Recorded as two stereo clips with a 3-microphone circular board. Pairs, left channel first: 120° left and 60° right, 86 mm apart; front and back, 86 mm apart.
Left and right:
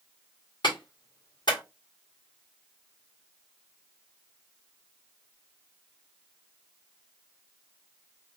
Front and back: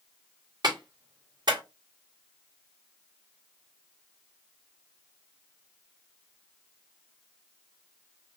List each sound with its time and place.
0.6 s a clap: 145° left, 1.9 m